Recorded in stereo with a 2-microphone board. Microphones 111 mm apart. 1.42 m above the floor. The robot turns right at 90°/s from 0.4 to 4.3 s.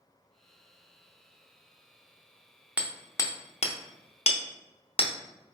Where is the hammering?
10° right (ahead or behind), 0.6 m; by 5.1 s 55° left (ahead or behind), 0.6 m.